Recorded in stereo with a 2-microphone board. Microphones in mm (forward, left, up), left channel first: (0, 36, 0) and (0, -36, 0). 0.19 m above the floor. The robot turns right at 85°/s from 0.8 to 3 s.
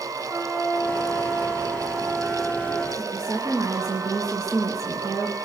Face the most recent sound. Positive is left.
turn(degrees=-45)  # may be behind; listen again after turning